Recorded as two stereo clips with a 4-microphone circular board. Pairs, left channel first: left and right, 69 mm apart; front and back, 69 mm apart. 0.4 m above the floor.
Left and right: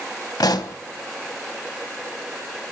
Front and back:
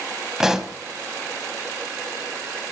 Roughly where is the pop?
Left.